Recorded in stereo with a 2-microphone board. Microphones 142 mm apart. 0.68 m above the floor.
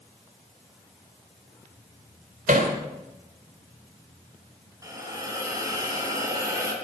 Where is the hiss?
25° right (ahead or behind), 3.5 m.